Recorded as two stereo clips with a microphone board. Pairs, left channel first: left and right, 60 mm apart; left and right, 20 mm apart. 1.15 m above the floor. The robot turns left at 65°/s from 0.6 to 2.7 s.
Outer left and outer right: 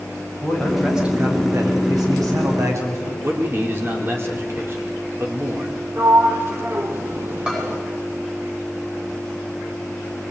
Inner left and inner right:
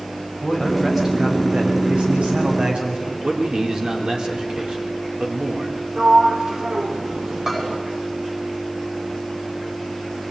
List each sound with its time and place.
0.4 s a man speaking: 15° left, 7.5 m; by 3.1 s 125° right, 7.5 m
3.2 s a man speaking: 40° right (ahead or behind), 4 m
6.0 s a sliding door: 40° right (ahead or behind), 3 m
7.5 s a bell: 15° right (ahead or behind), 10 m